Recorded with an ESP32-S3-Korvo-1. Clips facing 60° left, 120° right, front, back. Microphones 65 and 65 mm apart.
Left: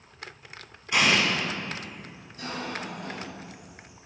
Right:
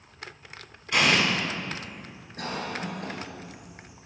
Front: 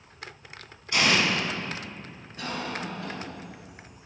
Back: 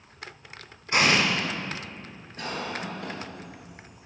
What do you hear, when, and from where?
0.9 s an explosion: 135° left, 1.1 m
2.4 s a cough: 95° right, 1.9 m